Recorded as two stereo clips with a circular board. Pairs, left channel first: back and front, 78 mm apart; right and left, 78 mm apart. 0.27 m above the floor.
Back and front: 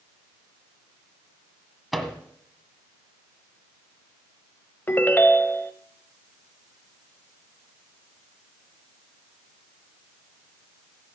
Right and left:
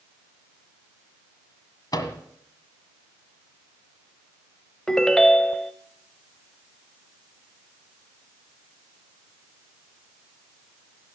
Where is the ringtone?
165° right, 0.6 m.